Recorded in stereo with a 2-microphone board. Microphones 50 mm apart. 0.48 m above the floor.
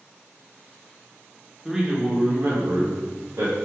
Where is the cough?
No cough in this recording.